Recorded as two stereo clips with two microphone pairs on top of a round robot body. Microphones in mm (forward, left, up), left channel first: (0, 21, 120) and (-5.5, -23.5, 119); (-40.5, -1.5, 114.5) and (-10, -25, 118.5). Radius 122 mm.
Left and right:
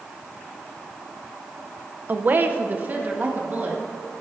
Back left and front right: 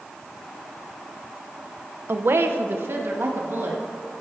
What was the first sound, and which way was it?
A woman speaking, 50° right.